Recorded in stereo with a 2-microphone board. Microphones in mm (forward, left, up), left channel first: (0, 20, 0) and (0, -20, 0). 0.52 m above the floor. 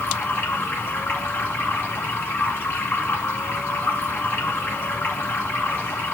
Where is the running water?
70° left (ahead or behind), 2.0 m.